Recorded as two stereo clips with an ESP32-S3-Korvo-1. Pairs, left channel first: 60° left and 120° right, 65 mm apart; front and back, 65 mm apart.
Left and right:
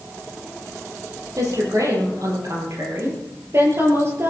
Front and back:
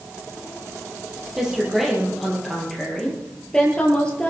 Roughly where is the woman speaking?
Right.